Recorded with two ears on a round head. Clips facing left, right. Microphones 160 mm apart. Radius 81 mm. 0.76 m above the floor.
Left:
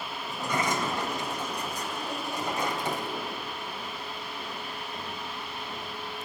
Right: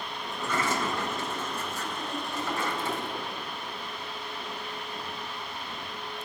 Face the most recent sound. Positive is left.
turn(degrees=15)  # may be behind; listen again after turning